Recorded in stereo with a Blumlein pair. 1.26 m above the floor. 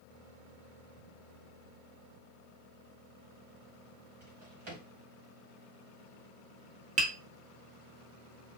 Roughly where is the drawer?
Ahead right.